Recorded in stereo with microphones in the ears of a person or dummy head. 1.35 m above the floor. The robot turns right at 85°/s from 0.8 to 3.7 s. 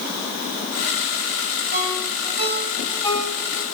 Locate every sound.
1.7 s a ringtone: 80° right, 4.5 m; by 3.6 s 70° left (ahead or behind), 4.5 m